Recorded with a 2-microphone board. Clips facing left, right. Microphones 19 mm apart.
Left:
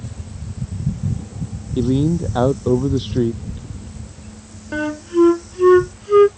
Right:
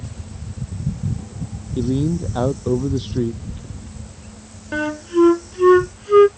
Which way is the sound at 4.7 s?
10° right (ahead or behind).